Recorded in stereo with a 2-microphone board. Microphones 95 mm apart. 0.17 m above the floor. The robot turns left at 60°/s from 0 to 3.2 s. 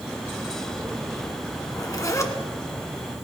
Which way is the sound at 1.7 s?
85° left.